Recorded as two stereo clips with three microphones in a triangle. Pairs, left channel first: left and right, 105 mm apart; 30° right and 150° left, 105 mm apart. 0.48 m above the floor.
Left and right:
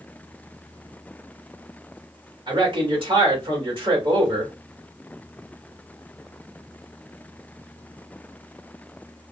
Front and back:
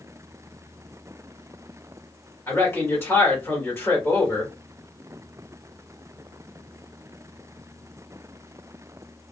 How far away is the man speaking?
About 1.5 m.